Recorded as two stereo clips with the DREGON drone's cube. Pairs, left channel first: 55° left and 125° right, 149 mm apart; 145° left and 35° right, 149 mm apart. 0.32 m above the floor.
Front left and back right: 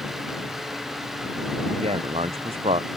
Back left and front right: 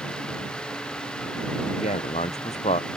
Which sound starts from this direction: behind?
A man speaking, at 1.7 s.